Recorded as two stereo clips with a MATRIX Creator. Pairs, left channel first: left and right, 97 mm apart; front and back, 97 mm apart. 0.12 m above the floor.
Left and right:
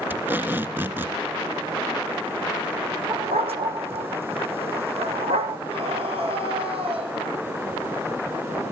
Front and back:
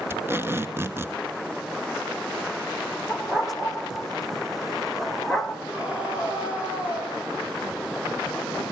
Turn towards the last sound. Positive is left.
turn(degrees=-100)